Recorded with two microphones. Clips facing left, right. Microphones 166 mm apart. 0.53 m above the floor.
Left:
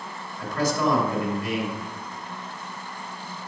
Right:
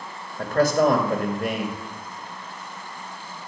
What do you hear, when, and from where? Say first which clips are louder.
0.4 s a man speaking: right 6 dB; 60° right (ahead or behind), 2 m